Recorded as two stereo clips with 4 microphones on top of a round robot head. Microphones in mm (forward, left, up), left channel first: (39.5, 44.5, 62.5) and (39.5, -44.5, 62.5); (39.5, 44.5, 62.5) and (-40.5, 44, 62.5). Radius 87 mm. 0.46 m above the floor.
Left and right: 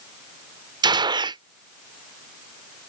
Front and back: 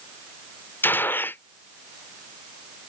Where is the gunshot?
65° right.